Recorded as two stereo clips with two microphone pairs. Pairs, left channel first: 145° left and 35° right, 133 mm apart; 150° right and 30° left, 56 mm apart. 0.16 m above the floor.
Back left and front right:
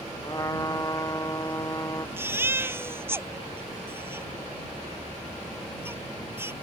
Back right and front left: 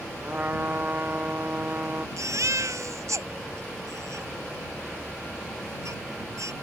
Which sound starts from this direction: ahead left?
A baby crying, at 2.2 s.